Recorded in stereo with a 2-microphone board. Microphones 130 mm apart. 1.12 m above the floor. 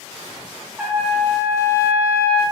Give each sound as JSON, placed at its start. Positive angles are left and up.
{"t": 0.8, "sound": "a trumpet", "side_deg": -5, "distance_m": 1.8}